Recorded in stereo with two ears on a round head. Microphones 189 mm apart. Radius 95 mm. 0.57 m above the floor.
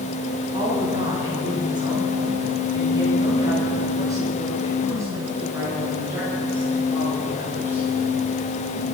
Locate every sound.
0.5 s a woman speaking: 25° right (ahead or behind), 4.5 m; by 7.8 s 10° right (ahead or behind), 8 m